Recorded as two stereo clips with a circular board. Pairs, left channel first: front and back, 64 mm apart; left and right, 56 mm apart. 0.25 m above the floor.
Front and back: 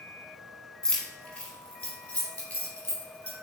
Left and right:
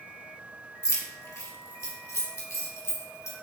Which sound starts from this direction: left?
Keys jangling, at 0.8 s.